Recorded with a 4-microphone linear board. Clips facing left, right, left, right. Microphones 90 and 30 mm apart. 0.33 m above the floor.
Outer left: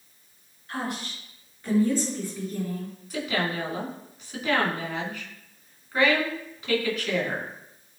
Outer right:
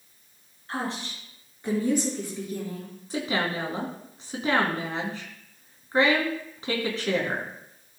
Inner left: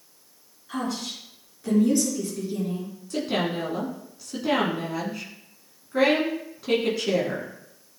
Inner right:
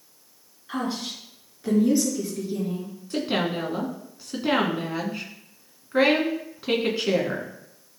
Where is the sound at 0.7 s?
35° right (ahead or behind), 3.5 m; by 2.9 s 10° right (ahead or behind), 4.5 m.